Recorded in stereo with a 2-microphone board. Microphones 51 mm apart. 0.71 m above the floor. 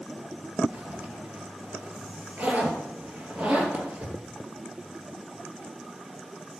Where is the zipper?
40° right (ahead or behind), 2.5 m.